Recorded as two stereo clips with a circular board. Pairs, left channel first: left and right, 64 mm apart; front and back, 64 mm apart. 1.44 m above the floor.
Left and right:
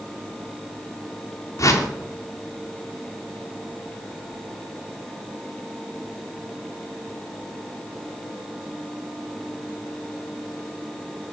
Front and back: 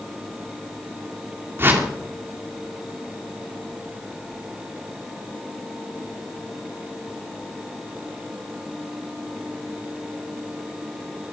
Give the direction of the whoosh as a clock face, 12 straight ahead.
8 o'clock.